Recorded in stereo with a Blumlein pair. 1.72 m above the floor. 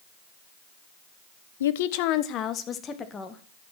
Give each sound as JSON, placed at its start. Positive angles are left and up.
{"t": 1.6, "sound": "a woman speaking", "azimuth_deg": 60, "distance_m": 1.0}